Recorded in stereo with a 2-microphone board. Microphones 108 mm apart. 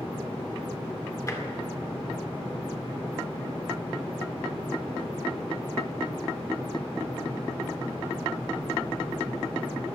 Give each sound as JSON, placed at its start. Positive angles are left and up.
{"t": 1.3, "sound": "tapping", "side_deg": 30, "distance_m": 2.0}